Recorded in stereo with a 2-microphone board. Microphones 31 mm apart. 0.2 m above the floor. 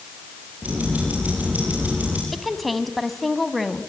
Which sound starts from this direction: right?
Ticking, at 0.6 s.